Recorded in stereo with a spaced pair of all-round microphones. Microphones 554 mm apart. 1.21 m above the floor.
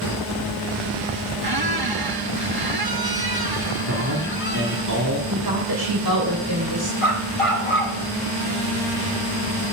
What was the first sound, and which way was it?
A squeak, 40° right (ahead or behind).